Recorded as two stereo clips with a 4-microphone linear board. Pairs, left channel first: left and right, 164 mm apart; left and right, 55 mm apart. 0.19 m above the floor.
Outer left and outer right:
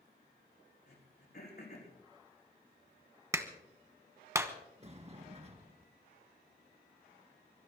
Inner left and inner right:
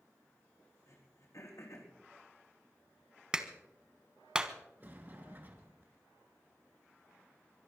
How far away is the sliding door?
About 2 m.